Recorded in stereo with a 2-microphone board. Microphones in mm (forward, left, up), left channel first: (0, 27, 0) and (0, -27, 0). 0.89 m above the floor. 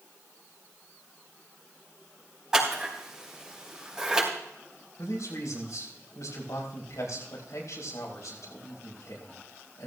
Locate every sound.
2.5 s scissors: 15° right (ahead or behind), 4.5 m
5.0 s a man speaking: 80° left, 5 m